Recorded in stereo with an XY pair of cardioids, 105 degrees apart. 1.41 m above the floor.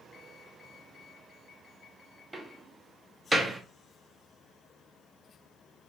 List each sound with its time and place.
2.3 s a door slam: 15° right, 0.8 m